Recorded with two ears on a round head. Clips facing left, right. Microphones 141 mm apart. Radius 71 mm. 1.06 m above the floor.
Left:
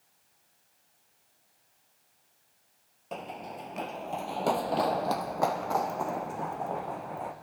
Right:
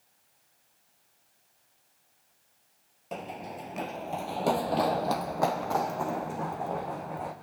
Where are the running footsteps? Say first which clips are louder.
Right 1 dB; 5° right (ahead or behind), 1.1 m; by 7.3 s centre (ahead or behind), 4 m.